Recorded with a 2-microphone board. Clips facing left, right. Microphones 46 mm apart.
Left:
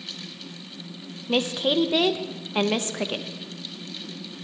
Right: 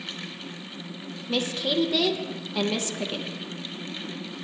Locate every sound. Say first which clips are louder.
1.3 s a woman speaking: left 3 dB; 35° left (ahead or behind), 0.7 m